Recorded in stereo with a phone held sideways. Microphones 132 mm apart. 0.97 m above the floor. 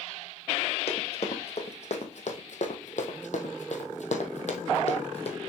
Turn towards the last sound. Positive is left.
turn(degrees=50)  # may be behind; listen again after turning